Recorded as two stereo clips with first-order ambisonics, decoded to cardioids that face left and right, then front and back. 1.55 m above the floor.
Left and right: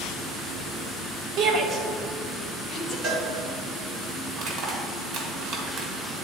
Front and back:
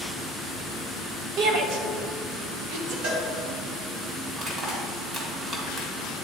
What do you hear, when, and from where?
1.4 s a shout: 140° right, 1.1 m; by 2.9 s 165° left, 1.5 m
3.0 s a cowbell: 145° right, 1.6 m
4.3 s crushing: 125° right, 1.7 m